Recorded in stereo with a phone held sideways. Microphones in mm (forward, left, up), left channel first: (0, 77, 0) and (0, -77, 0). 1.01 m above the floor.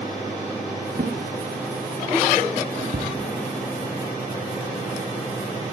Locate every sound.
0.9 s a drawer: 70° right (ahead or behind), 4.5 m